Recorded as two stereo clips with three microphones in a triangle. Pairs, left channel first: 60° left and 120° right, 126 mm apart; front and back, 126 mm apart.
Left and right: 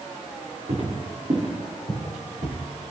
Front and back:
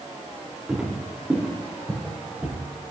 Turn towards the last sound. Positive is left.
turn(degrees=-105)